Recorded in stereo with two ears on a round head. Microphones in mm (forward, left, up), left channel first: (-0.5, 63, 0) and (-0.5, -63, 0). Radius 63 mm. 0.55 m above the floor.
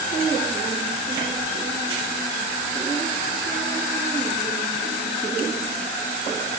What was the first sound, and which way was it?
Only background noise.